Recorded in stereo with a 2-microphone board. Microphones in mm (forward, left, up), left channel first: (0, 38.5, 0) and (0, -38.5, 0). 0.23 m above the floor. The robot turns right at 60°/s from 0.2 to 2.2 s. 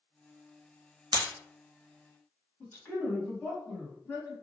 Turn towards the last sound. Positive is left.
turn(degrees=30)  # may be behind; listen again after turning